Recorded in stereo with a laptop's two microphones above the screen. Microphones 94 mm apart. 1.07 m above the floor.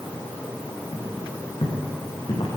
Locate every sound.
0.9 s footsteps: 75° left (ahead or behind), 6 m; by 2.5 s 70° left (ahead or behind), 6 m